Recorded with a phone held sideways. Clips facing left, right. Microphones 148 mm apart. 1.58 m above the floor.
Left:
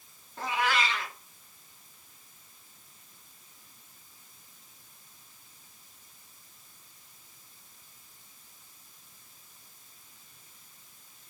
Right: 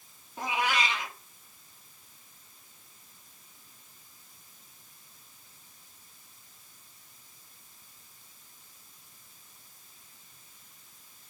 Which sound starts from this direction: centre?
A cat meowing, at 0.4 s.